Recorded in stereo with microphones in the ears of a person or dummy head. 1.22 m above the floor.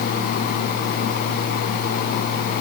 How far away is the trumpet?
No trumpet in this recording.